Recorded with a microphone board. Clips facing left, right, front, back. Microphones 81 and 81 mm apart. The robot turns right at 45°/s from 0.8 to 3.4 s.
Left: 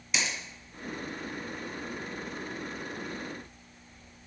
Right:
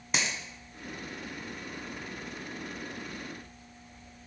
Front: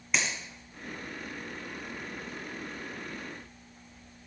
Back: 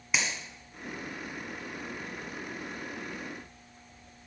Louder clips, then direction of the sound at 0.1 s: Right 1 dB, even; 100° right.